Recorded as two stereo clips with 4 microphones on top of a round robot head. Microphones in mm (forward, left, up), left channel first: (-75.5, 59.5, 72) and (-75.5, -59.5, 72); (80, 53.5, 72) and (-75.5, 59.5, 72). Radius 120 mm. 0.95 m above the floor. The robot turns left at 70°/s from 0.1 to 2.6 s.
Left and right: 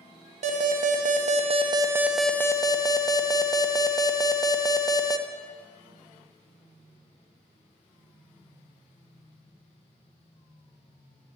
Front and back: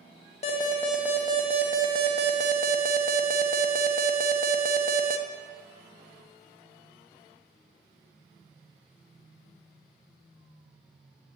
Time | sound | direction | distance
0.4 | an alarm | 55° right | 0.9 m